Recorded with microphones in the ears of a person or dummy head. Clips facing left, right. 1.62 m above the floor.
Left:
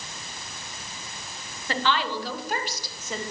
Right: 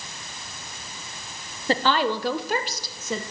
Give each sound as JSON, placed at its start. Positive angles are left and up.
{"t": 1.7, "sound": "a woman speaking", "side_deg": -30, "distance_m": 1.6}